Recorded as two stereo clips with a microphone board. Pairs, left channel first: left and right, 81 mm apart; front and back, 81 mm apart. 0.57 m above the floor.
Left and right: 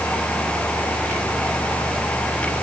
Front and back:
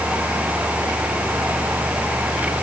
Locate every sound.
Only background noise.